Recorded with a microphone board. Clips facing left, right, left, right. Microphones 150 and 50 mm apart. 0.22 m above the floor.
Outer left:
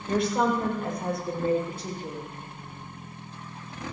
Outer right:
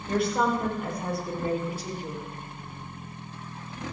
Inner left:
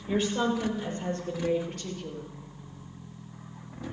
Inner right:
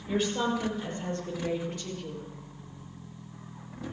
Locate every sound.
0.1 s a woman speaking: centre (ahead or behind), 5.5 m; by 2.2 s 10° right (ahead or behind), 4 m